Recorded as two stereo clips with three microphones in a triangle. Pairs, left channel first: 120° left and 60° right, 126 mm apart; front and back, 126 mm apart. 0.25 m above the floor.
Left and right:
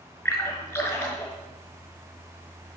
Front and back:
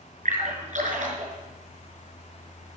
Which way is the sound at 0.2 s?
170° right.